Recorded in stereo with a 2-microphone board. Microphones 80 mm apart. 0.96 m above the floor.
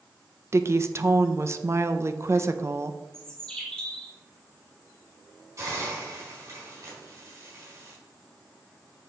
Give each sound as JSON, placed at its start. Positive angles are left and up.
{"t": 0.5, "sound": "a woman speaking", "side_deg": -35, "distance_m": 0.5}
{"t": 3.1, "sound": "a bird", "side_deg": 10, "distance_m": 1.3}
{"t": 5.6, "sound": "a hiss", "side_deg": -40, "distance_m": 3.5}